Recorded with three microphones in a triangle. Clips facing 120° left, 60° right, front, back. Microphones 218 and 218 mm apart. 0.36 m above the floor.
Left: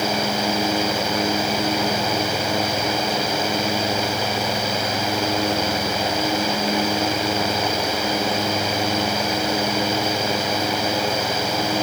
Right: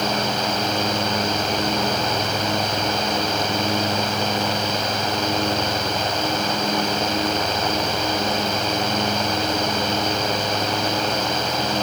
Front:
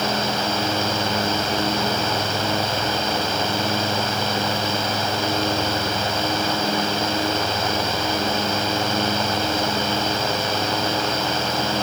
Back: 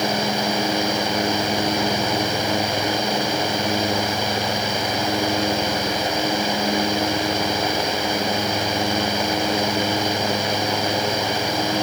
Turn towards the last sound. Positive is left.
No sound to turn to.